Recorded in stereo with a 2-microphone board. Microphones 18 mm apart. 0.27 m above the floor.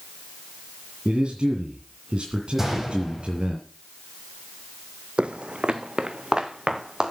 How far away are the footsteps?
About 0.6 m.